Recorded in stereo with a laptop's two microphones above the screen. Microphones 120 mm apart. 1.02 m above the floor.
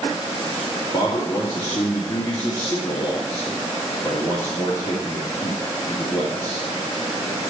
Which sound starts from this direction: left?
A man speaking, at 0.9 s.